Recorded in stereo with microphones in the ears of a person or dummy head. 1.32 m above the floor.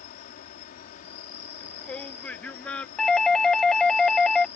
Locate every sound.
0.0 s an insect: 40° left (ahead or behind)
1.6 s a shout: 10° left (ahead or behind)
3.0 s a doorbell: centre (ahead or behind)